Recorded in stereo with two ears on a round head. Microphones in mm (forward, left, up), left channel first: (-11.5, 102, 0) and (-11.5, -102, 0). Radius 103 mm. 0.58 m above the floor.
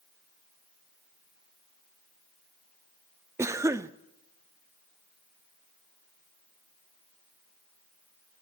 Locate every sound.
3.4 s a cough: 10° right (ahead or behind), 0.6 m